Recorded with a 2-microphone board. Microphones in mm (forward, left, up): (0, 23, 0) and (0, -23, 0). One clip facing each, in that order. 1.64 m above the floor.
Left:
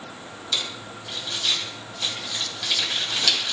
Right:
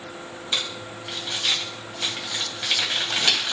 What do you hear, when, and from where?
0.5 s crumpling: 25° right (ahead or behind), 2 m